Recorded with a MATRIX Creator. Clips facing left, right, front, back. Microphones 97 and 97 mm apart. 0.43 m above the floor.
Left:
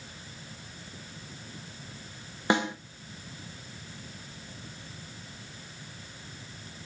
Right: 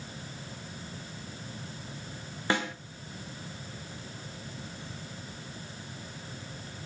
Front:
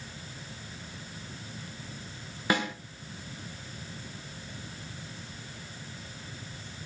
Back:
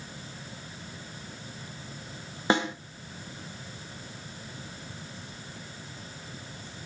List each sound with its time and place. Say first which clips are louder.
2.5 s a snare drum: left 4 dB, back 3 dB; 145° left, 0.7 m